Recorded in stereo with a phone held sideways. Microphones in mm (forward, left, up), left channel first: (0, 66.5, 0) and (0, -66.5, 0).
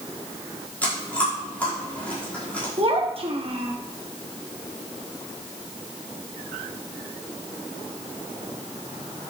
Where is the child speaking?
45° right (ahead or behind), 1.2 m.